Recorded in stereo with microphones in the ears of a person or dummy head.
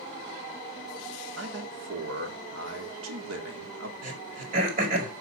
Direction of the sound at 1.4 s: 85° right.